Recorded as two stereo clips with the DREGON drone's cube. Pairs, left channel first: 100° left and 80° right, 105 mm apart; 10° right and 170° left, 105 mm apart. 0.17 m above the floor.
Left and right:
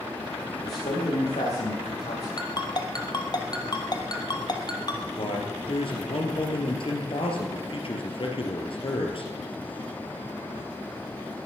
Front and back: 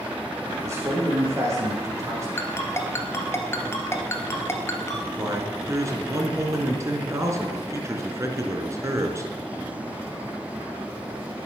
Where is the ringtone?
55° left, 1.7 m.